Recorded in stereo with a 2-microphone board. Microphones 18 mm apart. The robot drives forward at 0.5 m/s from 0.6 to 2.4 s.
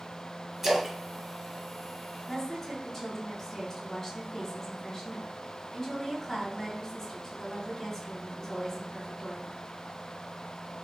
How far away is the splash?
About 0.7 m.